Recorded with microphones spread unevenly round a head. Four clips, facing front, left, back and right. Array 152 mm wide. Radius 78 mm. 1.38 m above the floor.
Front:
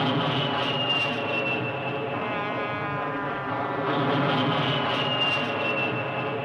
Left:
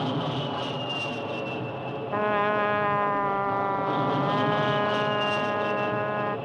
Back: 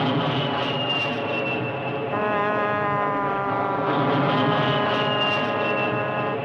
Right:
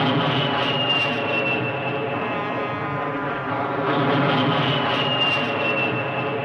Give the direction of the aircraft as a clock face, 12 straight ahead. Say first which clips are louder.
Right 8 dB, back 2 dB; 4 o'clock.